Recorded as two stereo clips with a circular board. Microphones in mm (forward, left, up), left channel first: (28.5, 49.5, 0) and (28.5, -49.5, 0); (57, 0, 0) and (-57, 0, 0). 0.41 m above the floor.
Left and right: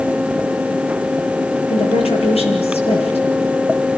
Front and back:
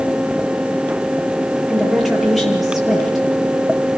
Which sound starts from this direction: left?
A woman speaking, at 1.7 s.